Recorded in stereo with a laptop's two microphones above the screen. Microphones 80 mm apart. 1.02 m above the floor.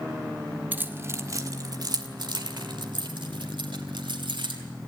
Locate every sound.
0.7 s keys jangling: 20° right (ahead or behind), 1.4 m; by 4.6 s 85° right, 3.5 m